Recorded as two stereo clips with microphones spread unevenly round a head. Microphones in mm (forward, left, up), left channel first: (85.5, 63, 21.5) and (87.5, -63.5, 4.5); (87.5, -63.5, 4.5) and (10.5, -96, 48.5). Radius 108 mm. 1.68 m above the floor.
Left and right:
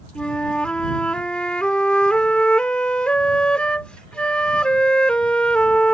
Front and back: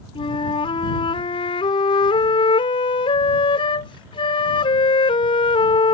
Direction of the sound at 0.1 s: 45° left.